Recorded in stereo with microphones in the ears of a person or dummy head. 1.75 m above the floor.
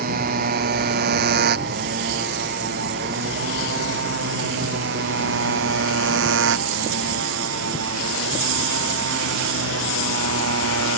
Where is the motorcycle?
50° right (ahead or behind); by 11.0 s 80° right.